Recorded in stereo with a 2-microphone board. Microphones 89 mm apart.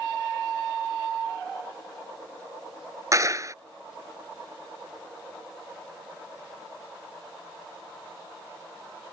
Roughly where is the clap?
Right.